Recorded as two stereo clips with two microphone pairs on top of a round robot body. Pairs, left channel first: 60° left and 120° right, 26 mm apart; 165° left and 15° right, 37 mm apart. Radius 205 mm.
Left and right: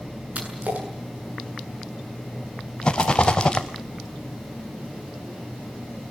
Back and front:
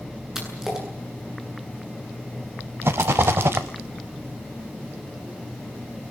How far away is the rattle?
About 0.5 m.